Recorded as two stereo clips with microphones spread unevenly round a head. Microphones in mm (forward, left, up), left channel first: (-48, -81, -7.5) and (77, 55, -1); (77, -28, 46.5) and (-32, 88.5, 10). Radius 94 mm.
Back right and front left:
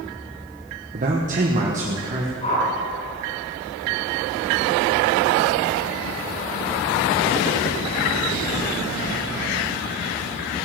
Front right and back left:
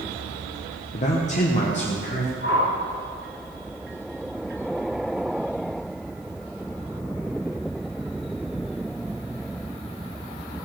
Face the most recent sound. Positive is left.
turn(degrees=-75)